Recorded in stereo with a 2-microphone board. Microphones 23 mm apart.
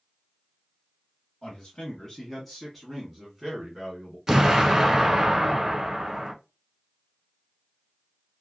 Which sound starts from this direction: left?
A man speaking, at 1.4 s.